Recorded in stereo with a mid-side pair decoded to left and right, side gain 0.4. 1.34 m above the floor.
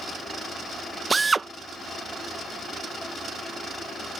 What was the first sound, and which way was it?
A drill, 30° right.